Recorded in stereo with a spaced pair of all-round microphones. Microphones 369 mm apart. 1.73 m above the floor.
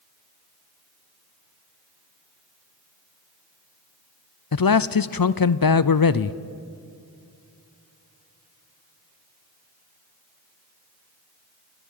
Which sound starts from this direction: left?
A man speaking, at 4.5 s.